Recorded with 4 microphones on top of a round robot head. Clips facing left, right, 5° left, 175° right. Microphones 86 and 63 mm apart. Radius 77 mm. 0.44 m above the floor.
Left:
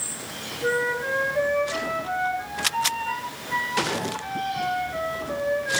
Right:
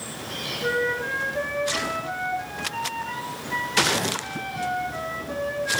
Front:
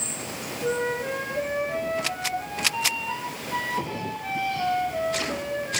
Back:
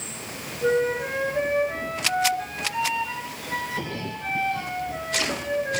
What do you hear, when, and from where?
0.6 s a flute: 175° left, 4.5 m